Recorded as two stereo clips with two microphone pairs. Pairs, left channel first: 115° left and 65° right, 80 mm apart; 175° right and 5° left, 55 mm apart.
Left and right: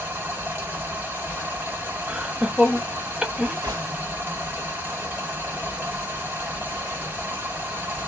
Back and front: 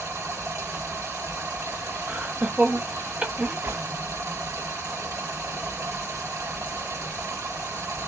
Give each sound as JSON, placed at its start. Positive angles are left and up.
{"t": 0.0, "sound": "running water", "azimuth_deg": 0, "distance_m": 1.3}
{"t": 2.1, "sound": "laughter", "azimuth_deg": 0, "distance_m": 0.5}
{"t": 3.6, "sound": "a gunshot", "azimuth_deg": -30, "distance_m": 2.0}